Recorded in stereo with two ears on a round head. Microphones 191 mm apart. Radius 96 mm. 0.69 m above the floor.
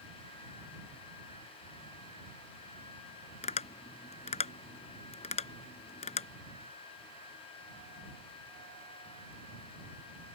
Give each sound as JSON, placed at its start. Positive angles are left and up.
{"t": 3.4, "sound": "tapping", "side_deg": 30}